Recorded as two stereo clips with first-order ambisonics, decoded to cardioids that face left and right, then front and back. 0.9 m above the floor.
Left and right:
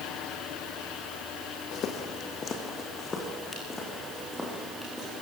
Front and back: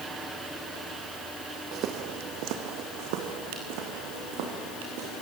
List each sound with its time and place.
1.7 s footsteps: 135° left, 2 m; by 5.2 s 175° left, 6 m